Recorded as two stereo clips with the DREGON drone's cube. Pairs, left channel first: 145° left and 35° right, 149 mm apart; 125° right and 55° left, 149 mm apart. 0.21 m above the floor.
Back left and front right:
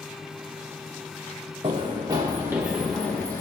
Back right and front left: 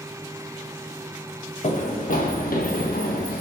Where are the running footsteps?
85° right, 1.1 m; by 3.4 s 140° right, 0.9 m.